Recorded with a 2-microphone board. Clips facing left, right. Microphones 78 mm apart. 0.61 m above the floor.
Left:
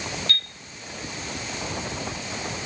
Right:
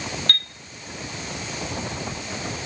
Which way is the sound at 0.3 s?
60° right (ahead or behind).